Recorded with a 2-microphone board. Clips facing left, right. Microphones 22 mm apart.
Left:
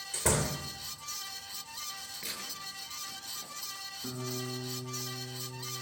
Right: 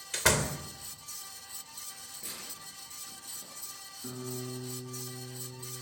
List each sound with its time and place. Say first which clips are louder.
0.1 s a door slam: right 3 dB; 55° right (ahead or behind), 3 m
2.2 s tearing paper: left 4 dB; 40° left (ahead or behind), 7 m
4.0 s a guitar: left 1 dB; 30° left (ahead or behind), 6.5 m